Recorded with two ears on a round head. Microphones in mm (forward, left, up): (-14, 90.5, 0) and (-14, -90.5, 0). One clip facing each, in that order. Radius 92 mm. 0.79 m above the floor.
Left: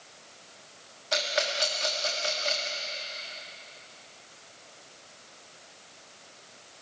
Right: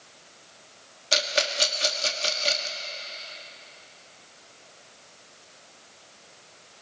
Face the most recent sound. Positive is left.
turn(degrees=-35)  # may be behind; listen again after turning